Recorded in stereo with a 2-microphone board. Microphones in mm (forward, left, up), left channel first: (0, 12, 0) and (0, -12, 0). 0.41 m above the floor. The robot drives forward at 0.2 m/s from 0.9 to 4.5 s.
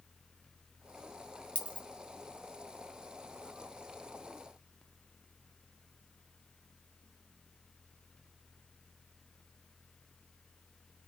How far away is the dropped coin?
About 1.5 m.